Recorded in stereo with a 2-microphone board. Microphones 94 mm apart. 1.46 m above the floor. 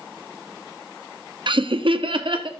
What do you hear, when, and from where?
1.5 s laughter: 60° right (ahead or behind), 0.7 m